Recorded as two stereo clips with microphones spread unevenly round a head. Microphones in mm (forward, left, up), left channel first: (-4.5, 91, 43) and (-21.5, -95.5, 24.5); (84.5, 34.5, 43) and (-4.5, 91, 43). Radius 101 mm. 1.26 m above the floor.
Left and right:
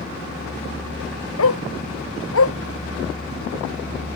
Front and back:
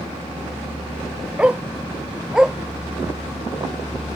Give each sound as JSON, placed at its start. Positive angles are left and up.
{"t": 1.4, "sound": "a dog barking", "azimuth_deg": 70}